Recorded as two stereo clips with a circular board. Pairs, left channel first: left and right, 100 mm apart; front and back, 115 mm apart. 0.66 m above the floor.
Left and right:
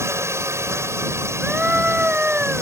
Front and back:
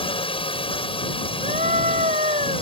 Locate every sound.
0.0 s a drone: 30° right
1.4 s a scream: 165° right